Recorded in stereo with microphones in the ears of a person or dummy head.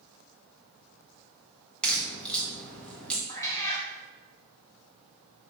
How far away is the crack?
About 1.1 m.